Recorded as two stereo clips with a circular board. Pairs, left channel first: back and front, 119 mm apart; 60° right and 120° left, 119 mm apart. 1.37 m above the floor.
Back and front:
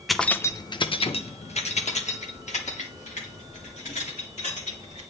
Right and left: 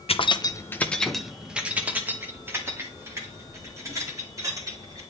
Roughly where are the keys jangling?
Right.